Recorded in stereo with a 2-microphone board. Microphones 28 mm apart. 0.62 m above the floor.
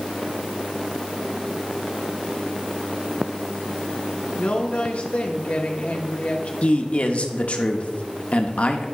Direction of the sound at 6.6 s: 50° left (ahead or behind).